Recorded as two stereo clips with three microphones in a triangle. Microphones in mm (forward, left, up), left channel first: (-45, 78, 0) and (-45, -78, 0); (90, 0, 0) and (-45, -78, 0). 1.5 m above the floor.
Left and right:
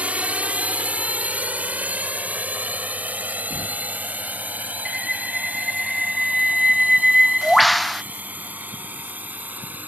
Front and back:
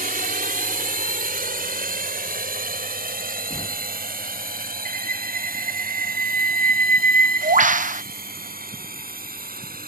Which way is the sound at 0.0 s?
170° right.